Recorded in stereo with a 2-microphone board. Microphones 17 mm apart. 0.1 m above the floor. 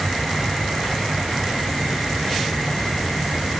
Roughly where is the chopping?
I don't hear chopping.